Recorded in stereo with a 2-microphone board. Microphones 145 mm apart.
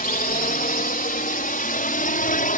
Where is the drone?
75° left (ahead or behind); by 2.6 s 70° left (ahead or behind).